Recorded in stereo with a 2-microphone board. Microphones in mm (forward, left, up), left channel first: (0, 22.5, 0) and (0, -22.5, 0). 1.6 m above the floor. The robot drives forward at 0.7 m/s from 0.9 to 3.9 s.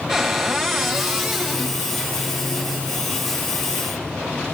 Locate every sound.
0.1 s a cupboard door: centre (ahead or behind), 1.9 m